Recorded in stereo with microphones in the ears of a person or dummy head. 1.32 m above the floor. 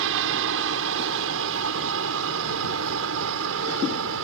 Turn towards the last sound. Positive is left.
turn(degrees=-70)  # may be behind; listen again after turning